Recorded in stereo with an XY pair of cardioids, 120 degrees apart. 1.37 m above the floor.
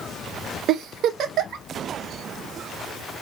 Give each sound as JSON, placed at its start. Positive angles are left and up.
{"t": 0.7, "sound": "a giggle", "azimuth_deg": -65, "distance_m": 0.6}